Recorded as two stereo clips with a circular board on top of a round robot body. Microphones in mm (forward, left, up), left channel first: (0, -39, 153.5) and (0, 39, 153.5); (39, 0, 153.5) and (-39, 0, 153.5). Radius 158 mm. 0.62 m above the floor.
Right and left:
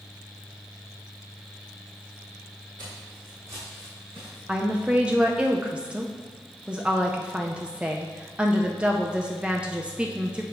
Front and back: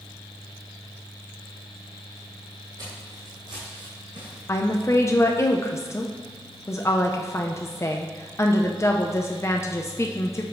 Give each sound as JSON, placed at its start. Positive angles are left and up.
{"t": 2.8, "sound": "footsteps", "azimuth_deg": 135, "distance_m": 1.4}
{"t": 4.5, "sound": "a woman speaking", "azimuth_deg": 20, "distance_m": 0.7}